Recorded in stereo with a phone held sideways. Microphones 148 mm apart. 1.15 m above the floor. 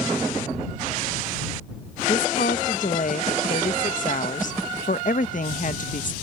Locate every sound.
2.1 s a woman speaking: 60° left (ahead or behind)